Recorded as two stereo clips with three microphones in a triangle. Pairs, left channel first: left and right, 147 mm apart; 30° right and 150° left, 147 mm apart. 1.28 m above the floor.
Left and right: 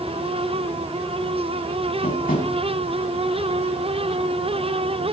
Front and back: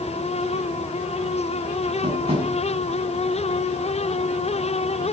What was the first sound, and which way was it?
Tapping, 105° left.